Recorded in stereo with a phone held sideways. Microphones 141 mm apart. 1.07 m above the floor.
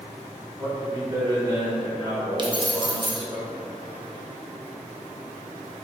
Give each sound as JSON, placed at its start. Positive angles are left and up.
{"t": 0.6, "sound": "a man speaking", "side_deg": -30, "distance_m": 2.0}
{"t": 2.4, "sound": "keys jangling", "side_deg": -35, "distance_m": 0.8}